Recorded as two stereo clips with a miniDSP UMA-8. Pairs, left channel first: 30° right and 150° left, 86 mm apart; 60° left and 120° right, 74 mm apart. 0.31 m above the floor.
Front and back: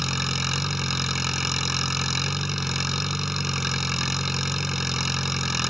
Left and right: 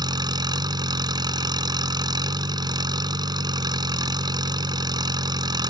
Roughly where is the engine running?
Behind right.